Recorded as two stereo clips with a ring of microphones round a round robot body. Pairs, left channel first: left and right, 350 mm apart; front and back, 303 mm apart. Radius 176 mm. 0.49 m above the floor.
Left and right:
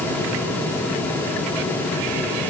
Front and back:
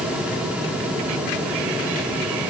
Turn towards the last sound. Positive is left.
No sound to turn to.